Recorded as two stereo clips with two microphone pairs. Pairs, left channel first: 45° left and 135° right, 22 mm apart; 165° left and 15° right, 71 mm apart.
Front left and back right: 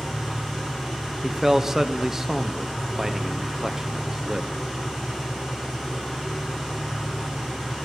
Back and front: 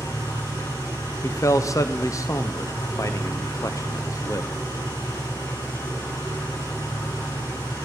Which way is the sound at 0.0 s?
160° left.